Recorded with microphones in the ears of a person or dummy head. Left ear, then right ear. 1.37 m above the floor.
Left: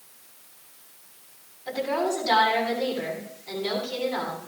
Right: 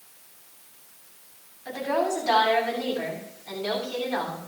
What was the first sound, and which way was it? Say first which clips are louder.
A woman speaking: even; 70° right (ahead or behind).